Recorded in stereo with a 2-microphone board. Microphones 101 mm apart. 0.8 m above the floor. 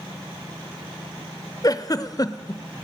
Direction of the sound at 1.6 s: 35° left (ahead or behind).